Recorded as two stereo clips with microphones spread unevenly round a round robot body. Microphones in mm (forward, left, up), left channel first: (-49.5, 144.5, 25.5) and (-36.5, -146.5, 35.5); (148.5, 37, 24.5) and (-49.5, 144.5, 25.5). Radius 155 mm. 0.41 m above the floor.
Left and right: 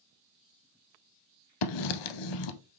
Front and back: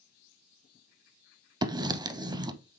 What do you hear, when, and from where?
1.6 s writing: 75° left, 0.5 m